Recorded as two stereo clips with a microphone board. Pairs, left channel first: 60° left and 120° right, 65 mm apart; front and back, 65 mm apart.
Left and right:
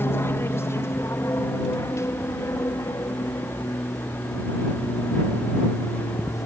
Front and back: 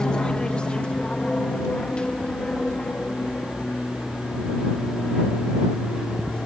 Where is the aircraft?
70° left.